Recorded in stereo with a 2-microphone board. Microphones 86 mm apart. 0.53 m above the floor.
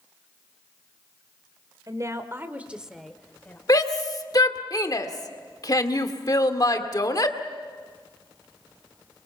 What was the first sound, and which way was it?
A woman speaking, 40° right (ahead or behind).